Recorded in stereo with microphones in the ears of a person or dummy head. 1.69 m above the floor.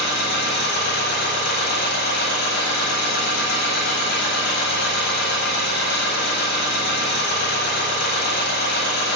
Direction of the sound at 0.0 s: 50° left (ahead or behind).